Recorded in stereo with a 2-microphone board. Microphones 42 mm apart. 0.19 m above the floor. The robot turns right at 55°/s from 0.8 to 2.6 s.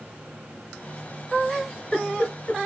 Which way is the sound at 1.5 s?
5° right (ahead or behind).